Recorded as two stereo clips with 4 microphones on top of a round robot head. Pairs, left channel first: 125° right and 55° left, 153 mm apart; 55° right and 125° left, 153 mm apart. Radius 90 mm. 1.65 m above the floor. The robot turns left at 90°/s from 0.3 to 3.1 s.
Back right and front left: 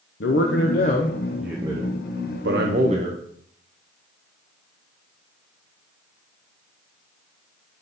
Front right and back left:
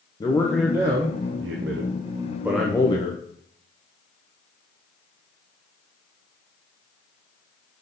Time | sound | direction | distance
0.2 | a man speaking | 120° right | 0.6 m